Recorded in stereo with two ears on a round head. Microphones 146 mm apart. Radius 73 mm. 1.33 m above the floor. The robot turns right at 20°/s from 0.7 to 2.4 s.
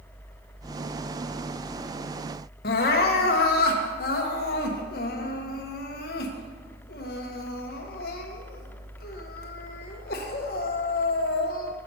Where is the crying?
60° left (ahead or behind), 0.9 m.